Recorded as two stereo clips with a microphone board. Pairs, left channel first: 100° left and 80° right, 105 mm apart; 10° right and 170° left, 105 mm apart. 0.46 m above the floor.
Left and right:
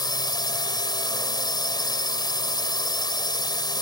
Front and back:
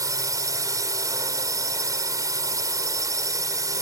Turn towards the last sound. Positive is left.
turn(degrees=125)